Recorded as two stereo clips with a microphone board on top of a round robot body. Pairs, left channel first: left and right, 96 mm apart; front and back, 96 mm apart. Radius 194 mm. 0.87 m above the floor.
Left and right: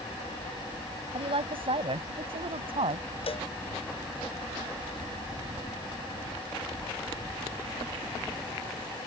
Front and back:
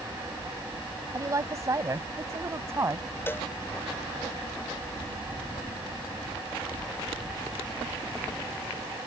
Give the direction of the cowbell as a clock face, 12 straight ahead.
10 o'clock.